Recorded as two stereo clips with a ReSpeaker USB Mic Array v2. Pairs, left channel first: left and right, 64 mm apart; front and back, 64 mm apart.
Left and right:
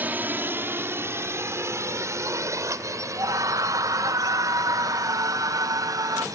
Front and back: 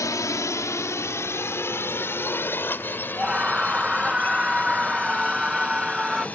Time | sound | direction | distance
0.0 | a drone | 30° right | ?
3.2 | a scream | 100° right | ?